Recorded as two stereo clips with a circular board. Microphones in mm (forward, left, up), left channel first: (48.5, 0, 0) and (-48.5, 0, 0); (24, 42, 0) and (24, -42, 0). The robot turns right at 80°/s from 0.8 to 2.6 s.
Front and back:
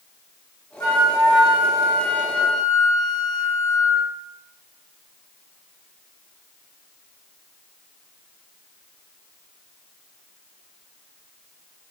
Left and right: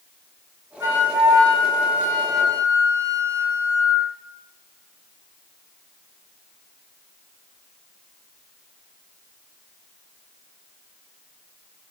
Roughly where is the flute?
Ahead right.